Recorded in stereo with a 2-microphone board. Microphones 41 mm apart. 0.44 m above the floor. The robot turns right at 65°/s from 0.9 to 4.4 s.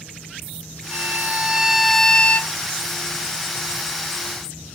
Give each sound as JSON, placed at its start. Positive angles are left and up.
{"t": 0.9, "sound": "a violin", "azimuth_deg": -65}